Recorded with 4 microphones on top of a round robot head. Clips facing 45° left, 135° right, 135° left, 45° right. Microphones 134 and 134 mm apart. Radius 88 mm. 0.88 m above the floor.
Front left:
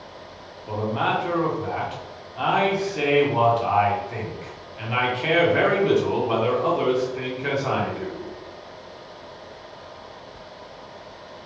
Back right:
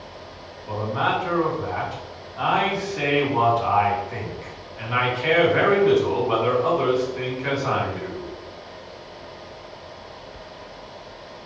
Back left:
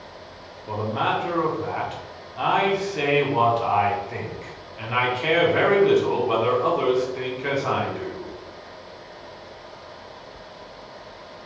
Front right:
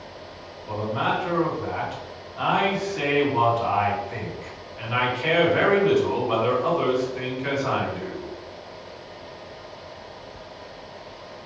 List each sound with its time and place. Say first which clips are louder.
0.7 s a man speaking: even, back left 1 dB; 100° left, 1.2 m